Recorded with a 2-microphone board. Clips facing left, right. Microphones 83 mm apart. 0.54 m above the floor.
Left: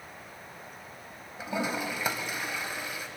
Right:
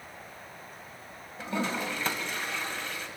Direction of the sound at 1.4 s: 10° left (ahead or behind).